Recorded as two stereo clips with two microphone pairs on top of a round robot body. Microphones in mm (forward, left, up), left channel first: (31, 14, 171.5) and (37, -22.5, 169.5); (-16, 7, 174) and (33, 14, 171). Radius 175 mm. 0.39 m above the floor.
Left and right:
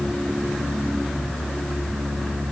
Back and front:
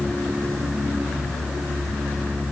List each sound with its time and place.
Only background noise.